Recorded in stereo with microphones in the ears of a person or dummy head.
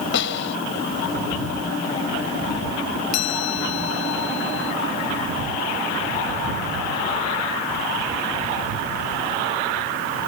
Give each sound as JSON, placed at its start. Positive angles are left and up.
{"t": 0.1, "sound": "a snare drum", "side_deg": 80}
{"t": 3.1, "sound": "a chime", "side_deg": 70}